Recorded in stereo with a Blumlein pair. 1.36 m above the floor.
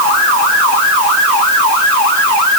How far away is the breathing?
I don't hear breathing.